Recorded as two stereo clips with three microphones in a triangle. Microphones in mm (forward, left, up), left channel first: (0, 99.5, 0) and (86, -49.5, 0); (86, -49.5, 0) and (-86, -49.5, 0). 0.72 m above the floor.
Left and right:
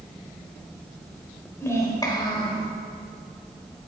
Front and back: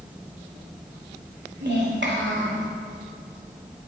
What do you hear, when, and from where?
1.6 s a child speaking: 165° right, 2 m; by 2.7 s 175° left, 1.9 m